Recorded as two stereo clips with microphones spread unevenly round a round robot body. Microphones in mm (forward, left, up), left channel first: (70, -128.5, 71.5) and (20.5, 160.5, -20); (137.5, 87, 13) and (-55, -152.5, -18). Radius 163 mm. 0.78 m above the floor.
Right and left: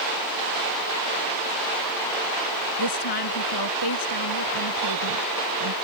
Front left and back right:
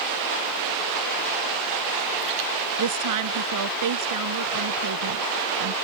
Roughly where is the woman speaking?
Right.